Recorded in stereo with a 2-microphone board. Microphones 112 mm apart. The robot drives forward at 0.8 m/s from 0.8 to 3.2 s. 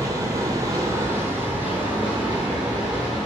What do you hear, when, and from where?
0.0 s running water: 30° right (ahead or behind), 0.8 m; by 3.3 s 10° right (ahead or behind), 2.5 m